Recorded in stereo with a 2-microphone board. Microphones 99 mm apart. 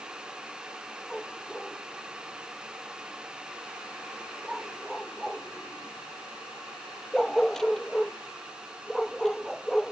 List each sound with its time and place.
1.1 s a dog barking: 5° left (ahead or behind)